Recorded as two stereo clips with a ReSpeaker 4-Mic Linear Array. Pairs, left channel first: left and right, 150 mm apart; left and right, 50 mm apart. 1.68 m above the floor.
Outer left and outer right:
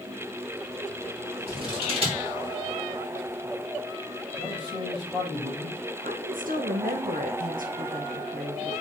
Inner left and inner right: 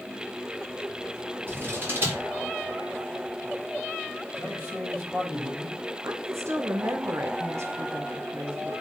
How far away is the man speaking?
About 6.5 m.